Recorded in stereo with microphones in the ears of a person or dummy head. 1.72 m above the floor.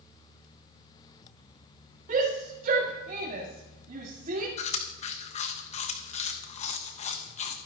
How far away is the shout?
About 2 m.